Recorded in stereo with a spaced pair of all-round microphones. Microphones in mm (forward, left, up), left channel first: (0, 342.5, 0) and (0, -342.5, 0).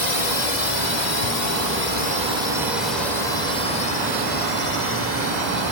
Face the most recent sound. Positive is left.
turn(degrees=70)  # may be behind; listen again after turning